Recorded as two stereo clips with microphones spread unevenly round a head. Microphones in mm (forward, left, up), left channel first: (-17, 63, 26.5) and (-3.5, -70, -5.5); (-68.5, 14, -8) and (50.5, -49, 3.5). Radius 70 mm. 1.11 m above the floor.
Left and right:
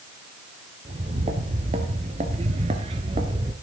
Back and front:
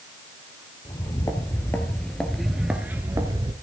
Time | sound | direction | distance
0.8 | footsteps | 140° right | 1.9 m